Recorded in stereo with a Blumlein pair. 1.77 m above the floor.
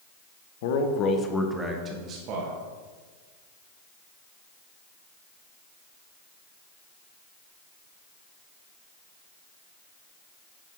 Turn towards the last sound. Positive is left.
turn(degrees=-45)